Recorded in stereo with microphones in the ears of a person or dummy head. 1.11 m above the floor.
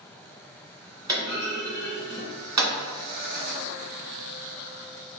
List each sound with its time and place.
1.1 s a clunk: 25° right (ahead or behind), 1.8 m